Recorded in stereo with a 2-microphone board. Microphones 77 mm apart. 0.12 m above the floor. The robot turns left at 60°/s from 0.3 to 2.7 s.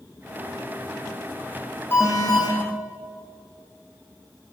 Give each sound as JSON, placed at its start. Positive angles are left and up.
{"t": 1.9, "sound": "an alarm", "azimuth_deg": 150, "distance_m": 4.5}